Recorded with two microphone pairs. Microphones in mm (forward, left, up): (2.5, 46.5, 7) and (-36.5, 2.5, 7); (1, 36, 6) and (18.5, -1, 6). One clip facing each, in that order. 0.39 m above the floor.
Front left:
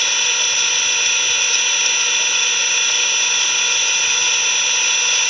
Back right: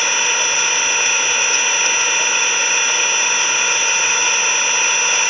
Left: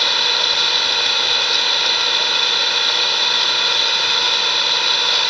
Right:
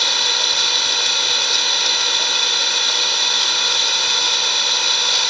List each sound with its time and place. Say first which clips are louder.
0.0 s an engine running: back right 3 dB, left 1 dB; 175° right, 0.8 m